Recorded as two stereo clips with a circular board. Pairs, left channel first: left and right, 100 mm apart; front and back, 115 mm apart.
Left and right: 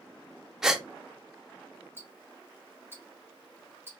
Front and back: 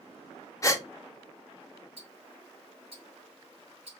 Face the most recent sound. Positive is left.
turn(degrees=-155)